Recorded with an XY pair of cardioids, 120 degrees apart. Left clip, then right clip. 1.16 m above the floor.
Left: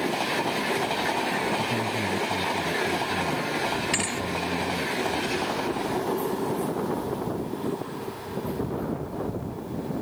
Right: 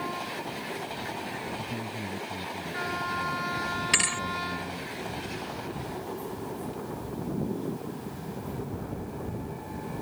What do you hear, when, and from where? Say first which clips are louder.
1.6 s a man speaking: left 9 dB; 25° left
3.9 s a thud: right 2 dB; 30° right